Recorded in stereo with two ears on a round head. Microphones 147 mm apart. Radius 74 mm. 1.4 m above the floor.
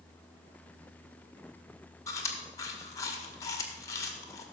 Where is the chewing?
20° left (ahead or behind), 1.9 m.